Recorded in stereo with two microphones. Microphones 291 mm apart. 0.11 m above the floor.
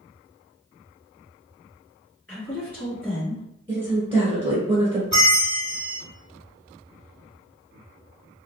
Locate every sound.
2.3 s a woman speaking: 5° left (ahead or behind), 1.5 m
3.7 s a woman speaking: 20° right (ahead or behind), 1.2 m
5.1 s a bell: 40° left (ahead or behind), 1.1 m